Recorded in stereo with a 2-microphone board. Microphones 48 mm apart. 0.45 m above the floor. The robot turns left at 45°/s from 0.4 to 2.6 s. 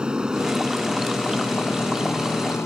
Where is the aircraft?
20° right (ahead or behind); by 2.7 s 65° left (ahead or behind).